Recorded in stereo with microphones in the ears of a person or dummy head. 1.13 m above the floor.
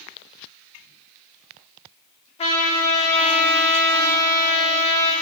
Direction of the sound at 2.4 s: 30° left (ahead or behind).